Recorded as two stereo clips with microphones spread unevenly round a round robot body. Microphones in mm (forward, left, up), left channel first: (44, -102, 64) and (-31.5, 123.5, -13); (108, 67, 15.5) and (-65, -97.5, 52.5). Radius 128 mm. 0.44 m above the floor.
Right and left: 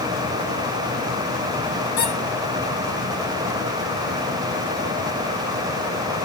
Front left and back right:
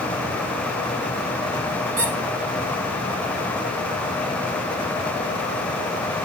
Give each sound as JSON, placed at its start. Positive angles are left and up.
{"t": 2.0, "sound": "a squeak", "azimuth_deg": -110, "distance_m": 2.0}